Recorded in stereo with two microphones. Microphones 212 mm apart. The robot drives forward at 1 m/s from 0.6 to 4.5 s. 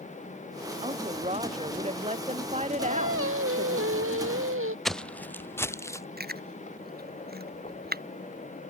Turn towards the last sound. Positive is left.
turn(degrees=-45)  # may be behind; listen again after turning